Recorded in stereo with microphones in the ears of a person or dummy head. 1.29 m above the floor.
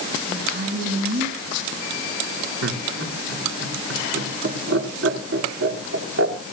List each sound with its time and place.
0.3 s a woman speaking: 65° right (ahead or behind), 8.5 m
2.6 s laughter: 85° right, 3 m